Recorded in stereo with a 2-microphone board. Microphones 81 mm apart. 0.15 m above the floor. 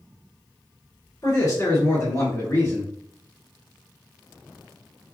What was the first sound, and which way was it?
A man speaking, 45° left (ahead or behind).